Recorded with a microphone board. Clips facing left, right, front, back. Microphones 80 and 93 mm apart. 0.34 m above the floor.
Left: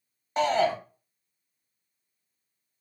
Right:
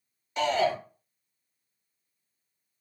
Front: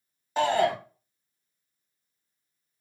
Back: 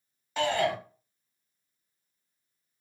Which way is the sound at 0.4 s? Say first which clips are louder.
Left 2 dB, front 4 dB; 45° left.